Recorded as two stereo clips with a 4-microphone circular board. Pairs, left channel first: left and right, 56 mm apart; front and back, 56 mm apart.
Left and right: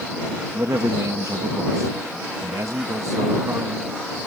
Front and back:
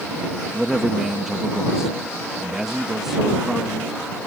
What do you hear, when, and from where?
0.5 s a man speaking: 95° right